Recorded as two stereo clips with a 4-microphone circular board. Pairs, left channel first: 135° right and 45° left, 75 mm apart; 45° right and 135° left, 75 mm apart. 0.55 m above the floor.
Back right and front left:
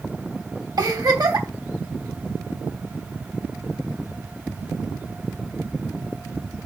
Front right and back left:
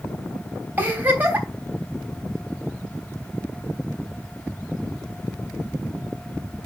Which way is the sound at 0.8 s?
70° left.